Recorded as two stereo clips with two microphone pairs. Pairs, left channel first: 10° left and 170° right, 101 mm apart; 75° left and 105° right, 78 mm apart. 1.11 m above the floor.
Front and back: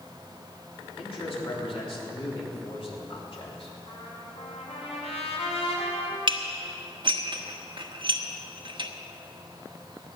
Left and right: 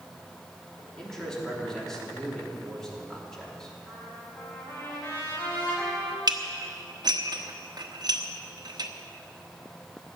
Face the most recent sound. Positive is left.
turn(degrees=-135)